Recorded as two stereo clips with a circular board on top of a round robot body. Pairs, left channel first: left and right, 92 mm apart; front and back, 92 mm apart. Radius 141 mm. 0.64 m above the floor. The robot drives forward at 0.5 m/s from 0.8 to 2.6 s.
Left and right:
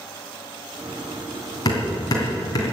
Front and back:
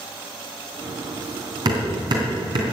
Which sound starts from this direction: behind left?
Hammering, at 1.6 s.